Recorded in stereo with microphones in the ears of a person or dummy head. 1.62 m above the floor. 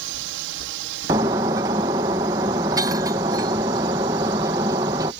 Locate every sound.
0.0 s a drone: 65° right (ahead or behind); by 5.2 s 60° right (ahead or behind)
1.1 s breaking glass: 10° right (ahead or behind)